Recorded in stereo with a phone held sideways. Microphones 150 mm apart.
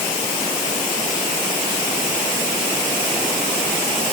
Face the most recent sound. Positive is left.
No sound to turn to.